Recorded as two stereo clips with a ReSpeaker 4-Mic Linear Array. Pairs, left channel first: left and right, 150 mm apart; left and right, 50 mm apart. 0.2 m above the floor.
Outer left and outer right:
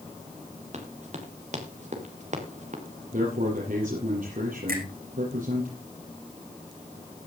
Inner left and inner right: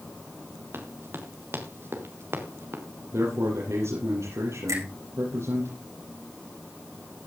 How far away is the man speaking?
About 6 m.